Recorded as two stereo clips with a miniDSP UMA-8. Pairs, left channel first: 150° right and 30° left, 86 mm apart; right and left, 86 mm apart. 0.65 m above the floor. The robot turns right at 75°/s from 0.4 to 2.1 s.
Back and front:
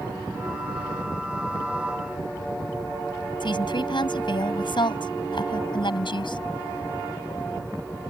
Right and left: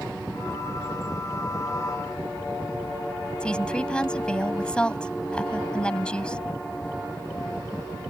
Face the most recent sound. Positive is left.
turn(degrees=-170)